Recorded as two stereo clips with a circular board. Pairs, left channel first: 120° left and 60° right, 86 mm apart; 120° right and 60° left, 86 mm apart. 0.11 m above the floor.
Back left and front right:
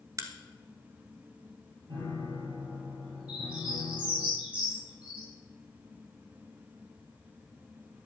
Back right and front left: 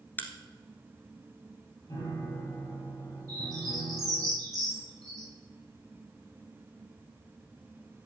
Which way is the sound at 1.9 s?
70° right.